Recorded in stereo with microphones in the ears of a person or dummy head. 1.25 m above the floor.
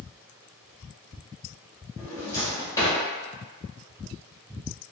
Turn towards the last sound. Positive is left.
turn(degrees=10)  # may be behind; listen again after turning